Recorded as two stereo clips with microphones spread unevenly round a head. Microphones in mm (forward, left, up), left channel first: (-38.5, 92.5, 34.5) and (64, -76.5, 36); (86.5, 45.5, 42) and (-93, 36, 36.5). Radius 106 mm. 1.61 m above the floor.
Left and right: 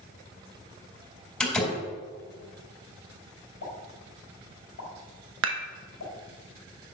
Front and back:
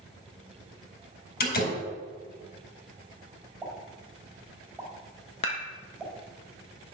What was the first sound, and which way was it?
A door slam, 35° left.